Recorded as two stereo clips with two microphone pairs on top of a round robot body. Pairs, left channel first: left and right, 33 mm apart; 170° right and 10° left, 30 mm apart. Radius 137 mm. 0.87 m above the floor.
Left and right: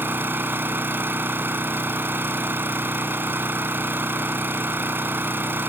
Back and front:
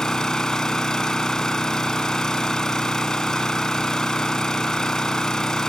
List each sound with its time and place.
0.0 s an engine running: 100° right